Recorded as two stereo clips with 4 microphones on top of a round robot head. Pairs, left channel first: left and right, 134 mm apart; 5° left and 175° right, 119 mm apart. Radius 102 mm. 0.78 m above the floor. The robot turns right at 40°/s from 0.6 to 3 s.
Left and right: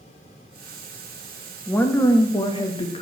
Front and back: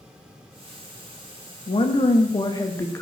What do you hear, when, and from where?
1.7 s a woman speaking: 15° left, 1.2 m; by 3.0 s 70° left, 1.2 m